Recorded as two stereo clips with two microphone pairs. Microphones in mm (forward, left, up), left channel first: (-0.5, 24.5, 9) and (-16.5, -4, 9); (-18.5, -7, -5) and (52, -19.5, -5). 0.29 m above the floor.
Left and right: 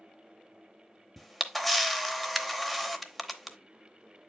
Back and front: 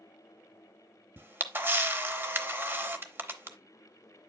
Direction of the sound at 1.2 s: 20° right.